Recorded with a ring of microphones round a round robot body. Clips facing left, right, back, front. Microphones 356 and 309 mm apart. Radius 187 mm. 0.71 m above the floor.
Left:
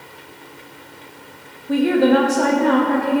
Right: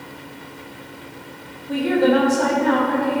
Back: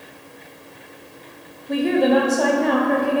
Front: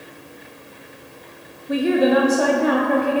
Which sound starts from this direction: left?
A woman speaking, at 1.7 s.